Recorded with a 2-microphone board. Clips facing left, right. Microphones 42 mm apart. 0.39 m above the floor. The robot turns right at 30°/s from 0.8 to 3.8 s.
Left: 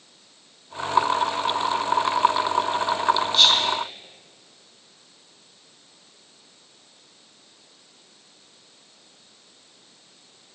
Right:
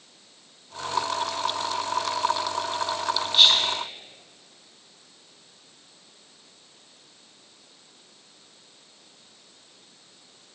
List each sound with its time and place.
3.3 s whispering: 10° right (ahead or behind), 3 m; by 3.7 s centre (ahead or behind), 3 m